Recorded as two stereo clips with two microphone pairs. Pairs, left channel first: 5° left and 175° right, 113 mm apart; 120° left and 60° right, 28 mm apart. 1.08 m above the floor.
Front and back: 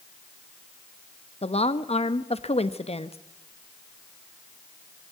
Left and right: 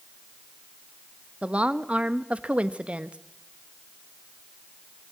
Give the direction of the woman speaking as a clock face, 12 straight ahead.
1 o'clock.